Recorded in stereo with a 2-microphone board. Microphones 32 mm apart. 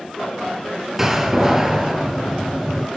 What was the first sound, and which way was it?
A door slam, 15° right (ahead or behind).